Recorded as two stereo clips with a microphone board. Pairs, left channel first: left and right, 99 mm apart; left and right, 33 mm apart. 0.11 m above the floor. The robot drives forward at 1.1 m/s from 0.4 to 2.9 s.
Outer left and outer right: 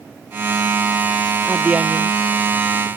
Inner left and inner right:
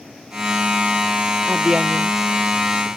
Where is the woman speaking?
15° right (ahead or behind); by 2.9 s 10° right (ahead or behind).